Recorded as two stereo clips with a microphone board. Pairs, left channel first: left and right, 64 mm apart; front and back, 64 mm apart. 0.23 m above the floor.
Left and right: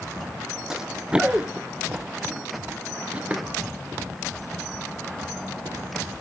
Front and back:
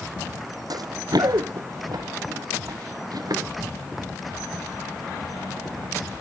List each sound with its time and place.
0.7 s running footsteps: 170° right, 0.6 m; by 3.4 s 160° right, 3 m